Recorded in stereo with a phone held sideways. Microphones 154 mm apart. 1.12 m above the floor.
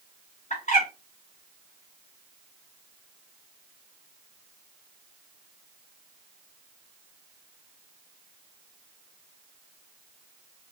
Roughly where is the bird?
Left.